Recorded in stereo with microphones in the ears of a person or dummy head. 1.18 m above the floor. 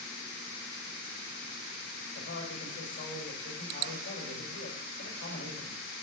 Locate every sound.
2.1 s a man speaking: 70° left (ahead or behind), 4 m